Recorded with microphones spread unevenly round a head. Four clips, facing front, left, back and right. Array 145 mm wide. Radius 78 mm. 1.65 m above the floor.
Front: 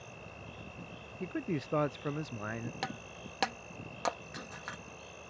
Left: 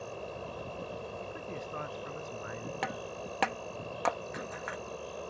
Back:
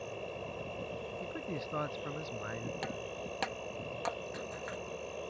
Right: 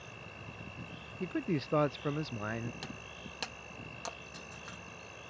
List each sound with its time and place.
0.0 s an insect: 135° left
1.2 s a man speaking: 60° right
2.8 s breaking glass: 80° left